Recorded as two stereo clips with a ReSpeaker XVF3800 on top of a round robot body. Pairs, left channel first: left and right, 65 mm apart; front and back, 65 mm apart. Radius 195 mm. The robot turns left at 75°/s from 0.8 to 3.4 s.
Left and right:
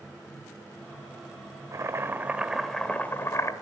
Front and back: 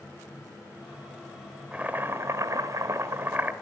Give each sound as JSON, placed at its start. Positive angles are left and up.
{"t": 1.7, "sound": "boiling", "azimuth_deg": -115, "distance_m": 1.9}